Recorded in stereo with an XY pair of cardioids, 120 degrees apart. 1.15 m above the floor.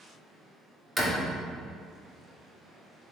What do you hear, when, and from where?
1.0 s a door slam: straight ahead, 1.4 m